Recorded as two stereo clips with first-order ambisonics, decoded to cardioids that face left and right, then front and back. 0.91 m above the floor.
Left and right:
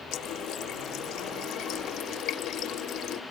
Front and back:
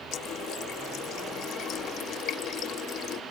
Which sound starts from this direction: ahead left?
A running tap, at 0.1 s.